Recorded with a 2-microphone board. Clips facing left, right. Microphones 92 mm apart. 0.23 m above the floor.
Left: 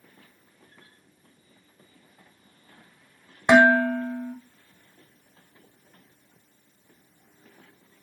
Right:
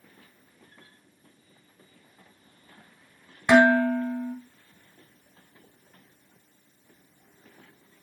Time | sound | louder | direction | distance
3.5 | dishes clattering | left 1 dB | 25° left (ahead or behind) | 1.0 m